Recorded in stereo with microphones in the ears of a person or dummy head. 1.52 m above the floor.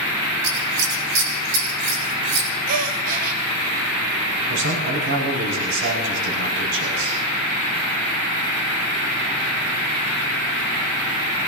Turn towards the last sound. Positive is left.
turn(degrees=-60)  # may be behind; listen again after turning